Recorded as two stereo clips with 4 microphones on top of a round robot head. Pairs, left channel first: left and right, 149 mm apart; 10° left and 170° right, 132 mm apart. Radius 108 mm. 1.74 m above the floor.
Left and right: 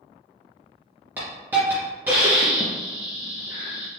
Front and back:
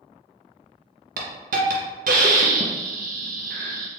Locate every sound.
1.2 s a hiss: 170° right, 0.5 m